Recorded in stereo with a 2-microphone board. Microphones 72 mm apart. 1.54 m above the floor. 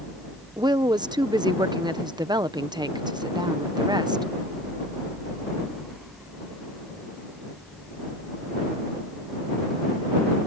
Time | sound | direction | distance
0.6 | a woman speaking | 70° right (ahead or behind) | ?